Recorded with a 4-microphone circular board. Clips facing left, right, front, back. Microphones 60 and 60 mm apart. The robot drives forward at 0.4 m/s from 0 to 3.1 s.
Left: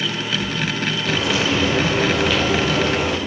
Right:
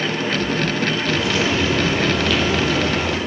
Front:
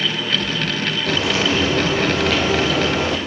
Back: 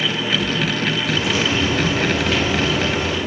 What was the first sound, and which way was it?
Frying, 10° left.